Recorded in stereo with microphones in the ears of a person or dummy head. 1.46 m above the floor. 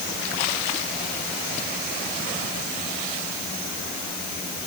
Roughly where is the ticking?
No ticking in this recording.